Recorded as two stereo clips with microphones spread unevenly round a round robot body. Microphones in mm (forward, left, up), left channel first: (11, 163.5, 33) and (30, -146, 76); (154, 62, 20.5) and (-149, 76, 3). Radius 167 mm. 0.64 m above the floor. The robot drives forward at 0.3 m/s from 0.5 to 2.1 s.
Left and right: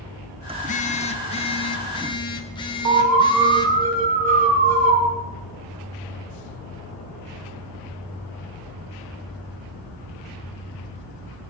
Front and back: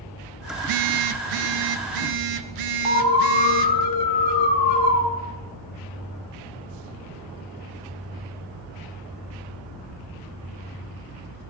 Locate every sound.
0.6 s a phone buzzing: 160° left, 0.5 m; by 3.9 s 170° left, 1.0 m
2.9 s an alarm: 30° right, 3 m